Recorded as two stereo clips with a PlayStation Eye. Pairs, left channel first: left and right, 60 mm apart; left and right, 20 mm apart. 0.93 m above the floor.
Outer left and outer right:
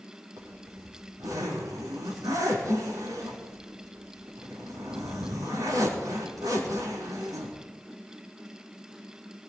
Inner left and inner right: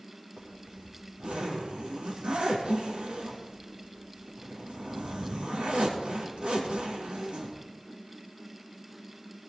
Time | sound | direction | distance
0.4 | a zipper | 85° right | 6 m